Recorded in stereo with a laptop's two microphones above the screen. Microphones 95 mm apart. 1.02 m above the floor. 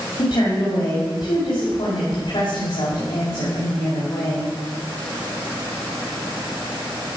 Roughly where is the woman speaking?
Left.